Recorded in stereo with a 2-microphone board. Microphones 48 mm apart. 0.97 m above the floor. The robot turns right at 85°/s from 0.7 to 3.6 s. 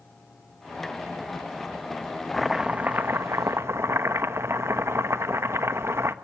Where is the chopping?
175° left, 1.2 m; by 6.1 s 80° right, 1.2 m.